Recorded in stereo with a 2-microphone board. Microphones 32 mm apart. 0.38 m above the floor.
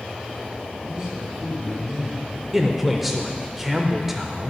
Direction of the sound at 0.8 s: 20° right (ahead or behind).